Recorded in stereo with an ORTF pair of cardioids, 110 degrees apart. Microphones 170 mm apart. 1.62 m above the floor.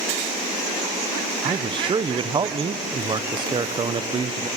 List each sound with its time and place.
1.4 s a man speaking: 30° right, 1.0 m